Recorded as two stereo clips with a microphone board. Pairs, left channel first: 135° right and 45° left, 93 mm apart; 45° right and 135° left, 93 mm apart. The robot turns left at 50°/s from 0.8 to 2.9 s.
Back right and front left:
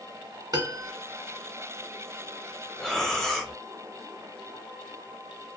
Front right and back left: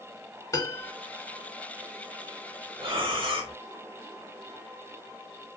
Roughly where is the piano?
Ahead.